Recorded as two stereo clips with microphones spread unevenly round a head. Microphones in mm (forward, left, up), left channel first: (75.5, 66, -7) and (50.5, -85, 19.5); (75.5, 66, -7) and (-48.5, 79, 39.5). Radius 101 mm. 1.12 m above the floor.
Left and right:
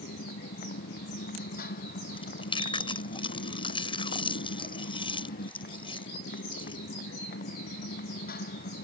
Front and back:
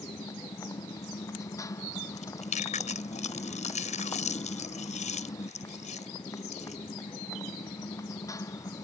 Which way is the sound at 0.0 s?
60° left.